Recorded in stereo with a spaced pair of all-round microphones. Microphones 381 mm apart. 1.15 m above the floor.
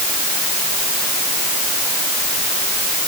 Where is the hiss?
No hiss in this recording.